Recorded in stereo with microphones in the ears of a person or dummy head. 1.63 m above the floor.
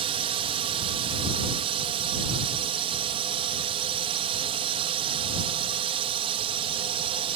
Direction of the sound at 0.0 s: 30° right (ahead or behind).